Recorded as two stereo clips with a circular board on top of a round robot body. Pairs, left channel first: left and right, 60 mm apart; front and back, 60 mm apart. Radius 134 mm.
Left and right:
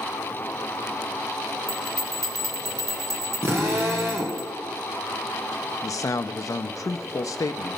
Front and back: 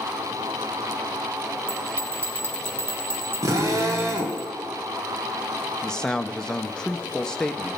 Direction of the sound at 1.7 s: 125° right.